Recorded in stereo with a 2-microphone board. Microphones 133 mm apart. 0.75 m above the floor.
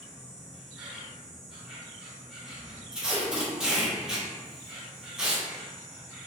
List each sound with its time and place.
0.0 s an insect: 5° right (ahead or behind), 1.0 m
2.9 s tape being pulled: 5° right (ahead or behind), 1.5 m